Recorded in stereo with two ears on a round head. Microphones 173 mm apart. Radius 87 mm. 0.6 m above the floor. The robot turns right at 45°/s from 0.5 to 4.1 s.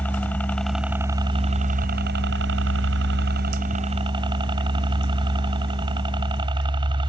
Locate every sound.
0.0 s a helicopter: 170° left; by 7.1 s 25° right